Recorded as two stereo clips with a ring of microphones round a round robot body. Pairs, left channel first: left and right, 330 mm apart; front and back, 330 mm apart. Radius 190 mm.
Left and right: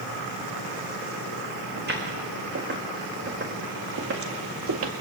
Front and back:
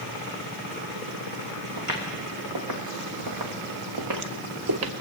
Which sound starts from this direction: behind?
Footsteps, at 1.8 s.